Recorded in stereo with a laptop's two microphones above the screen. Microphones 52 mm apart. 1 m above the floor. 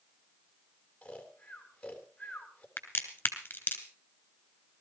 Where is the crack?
35° left (ahead or behind), 3 m.